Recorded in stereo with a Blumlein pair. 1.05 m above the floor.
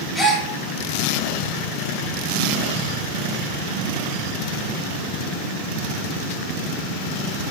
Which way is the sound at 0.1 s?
5° left.